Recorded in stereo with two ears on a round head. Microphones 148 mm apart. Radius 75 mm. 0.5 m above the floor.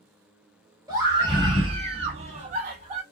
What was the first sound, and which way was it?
A scream, 20° right (ahead or behind).